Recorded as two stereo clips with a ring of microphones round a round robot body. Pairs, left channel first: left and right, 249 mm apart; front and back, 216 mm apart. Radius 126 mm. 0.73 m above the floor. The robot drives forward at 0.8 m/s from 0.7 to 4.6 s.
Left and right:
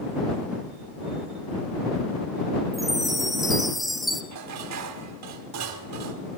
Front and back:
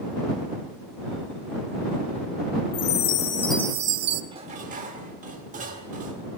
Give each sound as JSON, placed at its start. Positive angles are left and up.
{"t": 2.7, "sound": "a chime", "azimuth_deg": 0, "distance_m": 0.8}
{"t": 4.3, "sound": "dishes clattering", "azimuth_deg": -110, "distance_m": 1.2}